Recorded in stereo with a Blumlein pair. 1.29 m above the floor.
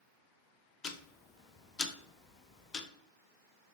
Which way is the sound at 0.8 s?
20° left.